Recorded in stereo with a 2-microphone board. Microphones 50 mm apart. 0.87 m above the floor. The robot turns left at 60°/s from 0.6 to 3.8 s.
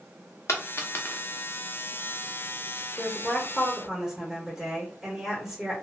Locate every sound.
0.5 s a dropped coin: 65° left (ahead or behind), 0.7 m; by 1.2 s 35° left (ahead or behind), 0.7 m
3.0 s a woman speaking: 30° left, 1.2 m; by 5.7 s 20° right, 1.2 m